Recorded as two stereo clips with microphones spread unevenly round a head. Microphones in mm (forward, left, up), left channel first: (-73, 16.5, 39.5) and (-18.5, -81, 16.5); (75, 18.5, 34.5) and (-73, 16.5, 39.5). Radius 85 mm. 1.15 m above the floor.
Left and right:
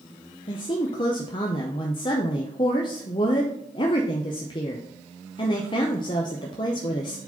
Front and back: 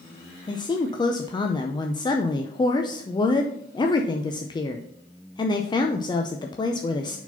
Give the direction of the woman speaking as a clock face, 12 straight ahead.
10 o'clock.